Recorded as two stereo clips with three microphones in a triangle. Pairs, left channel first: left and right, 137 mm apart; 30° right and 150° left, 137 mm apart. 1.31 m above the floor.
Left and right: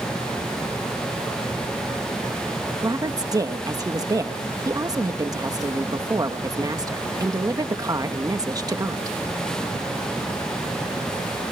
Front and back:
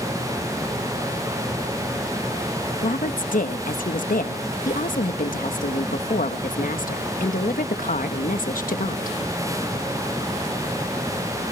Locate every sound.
2.8 s a woman speaking: 25° right, 1.4 m